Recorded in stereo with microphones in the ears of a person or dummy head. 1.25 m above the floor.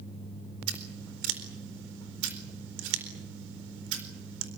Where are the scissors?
65° right (ahead or behind), 4 m.